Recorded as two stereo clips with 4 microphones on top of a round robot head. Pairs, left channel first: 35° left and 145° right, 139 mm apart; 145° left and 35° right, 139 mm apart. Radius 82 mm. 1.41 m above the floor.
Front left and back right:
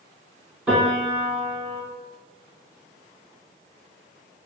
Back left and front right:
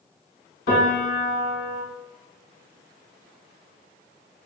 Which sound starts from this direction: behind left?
A piano, at 0.7 s.